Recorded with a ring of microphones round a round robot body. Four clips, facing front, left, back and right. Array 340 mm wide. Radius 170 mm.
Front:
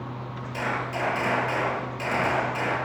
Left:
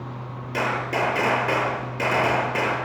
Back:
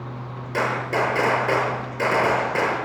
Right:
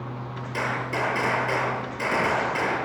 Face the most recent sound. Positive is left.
turn(degrees=145)